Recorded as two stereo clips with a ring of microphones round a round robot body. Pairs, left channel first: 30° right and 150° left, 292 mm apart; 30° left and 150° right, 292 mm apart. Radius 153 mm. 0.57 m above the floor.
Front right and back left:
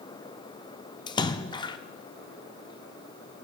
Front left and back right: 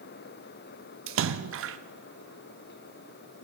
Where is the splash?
105° right, 0.6 m.